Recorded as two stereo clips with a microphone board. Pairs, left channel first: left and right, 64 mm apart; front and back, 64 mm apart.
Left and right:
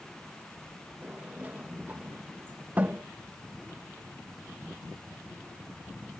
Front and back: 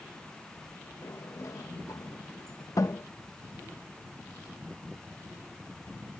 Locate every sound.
1.0 s a sliding door: 25° right